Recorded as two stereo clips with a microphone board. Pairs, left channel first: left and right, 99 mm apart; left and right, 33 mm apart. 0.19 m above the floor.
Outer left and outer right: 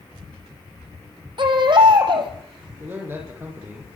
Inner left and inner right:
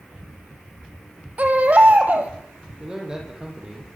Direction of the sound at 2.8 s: 25° right (ahead or behind).